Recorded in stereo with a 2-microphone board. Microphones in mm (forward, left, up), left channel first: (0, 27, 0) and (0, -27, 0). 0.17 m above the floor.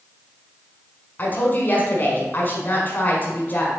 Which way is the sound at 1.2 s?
35° left (ahead or behind).